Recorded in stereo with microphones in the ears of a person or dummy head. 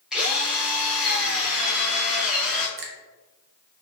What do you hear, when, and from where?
0.1 s a drill: centre (ahead or behind), 0.8 m
2.8 s a finger snap: 60° right (ahead or behind), 0.5 m